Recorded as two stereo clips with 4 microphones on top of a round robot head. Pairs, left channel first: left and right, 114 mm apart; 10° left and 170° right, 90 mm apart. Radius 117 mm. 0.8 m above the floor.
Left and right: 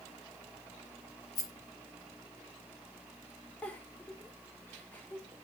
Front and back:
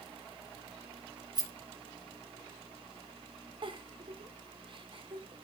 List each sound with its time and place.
1.4 s a rattle: 150° left, 5 m
3.6 s a giggle: 165° left, 3 m